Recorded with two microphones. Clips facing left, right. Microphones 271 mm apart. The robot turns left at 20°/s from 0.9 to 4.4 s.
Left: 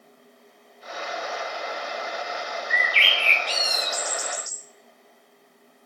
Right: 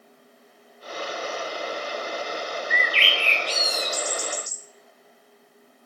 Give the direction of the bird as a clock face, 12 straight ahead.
2 o'clock.